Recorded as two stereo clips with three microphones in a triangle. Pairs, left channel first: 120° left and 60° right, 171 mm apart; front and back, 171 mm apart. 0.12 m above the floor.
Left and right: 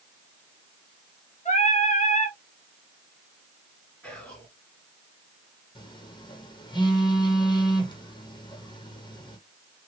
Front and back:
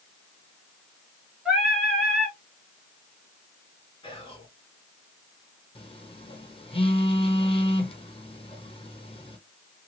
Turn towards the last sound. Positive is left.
turn(degrees=60)